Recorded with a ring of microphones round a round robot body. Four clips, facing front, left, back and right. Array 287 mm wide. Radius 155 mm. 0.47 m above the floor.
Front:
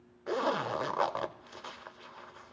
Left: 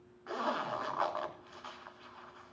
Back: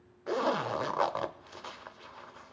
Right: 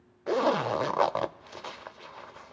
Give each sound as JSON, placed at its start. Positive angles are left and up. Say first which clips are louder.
{"t": 0.3, "sound": "a zipper", "louder": "right 10 dB, back 1 dB", "azimuth_deg": -85, "distance_m": 1.2}